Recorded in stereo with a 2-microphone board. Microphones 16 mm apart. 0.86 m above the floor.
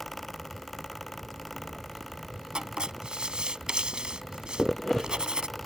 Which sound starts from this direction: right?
Writing, at 2.5 s.